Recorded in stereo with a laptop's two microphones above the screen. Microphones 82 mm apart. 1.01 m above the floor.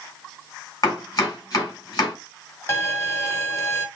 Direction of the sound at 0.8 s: 45° left (ahead or behind).